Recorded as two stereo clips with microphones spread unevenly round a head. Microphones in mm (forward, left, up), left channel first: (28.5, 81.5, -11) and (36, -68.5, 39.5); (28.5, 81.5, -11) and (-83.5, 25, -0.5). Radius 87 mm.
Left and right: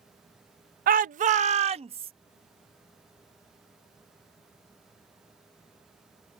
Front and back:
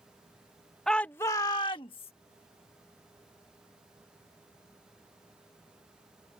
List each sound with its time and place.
0.9 s a shout: 60° right; by 2.1 s 35° right